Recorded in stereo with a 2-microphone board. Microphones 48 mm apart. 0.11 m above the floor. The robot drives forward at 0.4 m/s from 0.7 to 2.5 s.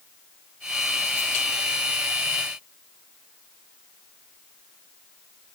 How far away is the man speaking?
No man speaking in this recording.